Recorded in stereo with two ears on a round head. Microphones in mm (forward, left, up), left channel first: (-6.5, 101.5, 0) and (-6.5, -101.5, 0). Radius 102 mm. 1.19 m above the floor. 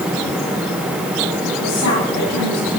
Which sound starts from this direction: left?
A woman speaking, at 1.4 s.